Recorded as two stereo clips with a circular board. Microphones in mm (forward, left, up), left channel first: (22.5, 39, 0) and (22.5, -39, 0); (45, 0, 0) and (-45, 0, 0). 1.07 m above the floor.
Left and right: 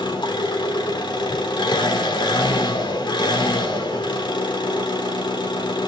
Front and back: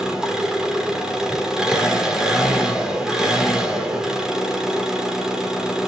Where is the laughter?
No laughter in this recording.